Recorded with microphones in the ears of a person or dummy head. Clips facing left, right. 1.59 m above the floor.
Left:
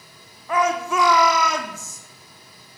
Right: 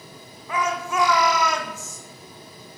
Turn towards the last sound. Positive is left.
turn(degrees=75)  # may be behind; listen again after turning